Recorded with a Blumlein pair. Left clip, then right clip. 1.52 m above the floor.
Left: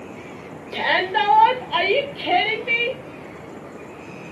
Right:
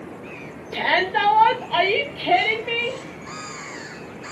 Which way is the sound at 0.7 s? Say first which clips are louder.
Even; 5° left.